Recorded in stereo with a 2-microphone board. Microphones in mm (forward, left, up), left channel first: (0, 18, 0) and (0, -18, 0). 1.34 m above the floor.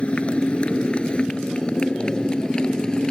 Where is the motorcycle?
35° left (ahead or behind); by 3.1 s 20° left (ahead or behind).